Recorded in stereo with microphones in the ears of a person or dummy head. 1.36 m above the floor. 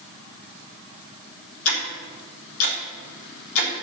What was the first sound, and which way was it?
Ticking, 75° left (ahead or behind).